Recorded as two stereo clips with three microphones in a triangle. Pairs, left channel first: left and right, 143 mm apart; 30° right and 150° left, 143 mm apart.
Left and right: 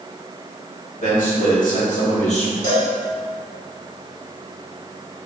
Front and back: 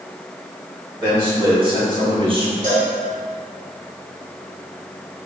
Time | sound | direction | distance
1.0 | a man speaking | 95° left | 2.0 m
2.6 | a cowbell | 120° left | 2.0 m